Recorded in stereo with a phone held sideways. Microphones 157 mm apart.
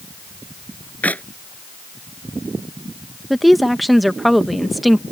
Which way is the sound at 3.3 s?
Centre (ahead or behind).